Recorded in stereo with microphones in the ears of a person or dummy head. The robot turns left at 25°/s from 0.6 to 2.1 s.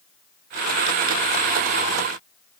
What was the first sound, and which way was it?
Only background noise.